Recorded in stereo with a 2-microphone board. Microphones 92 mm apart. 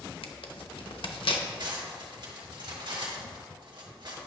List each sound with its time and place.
0.2 s tearing paper: 75° left (ahead or behind), 0.8 m
1.6 s cutlery clinking: 55° right (ahead or behind), 1.5 m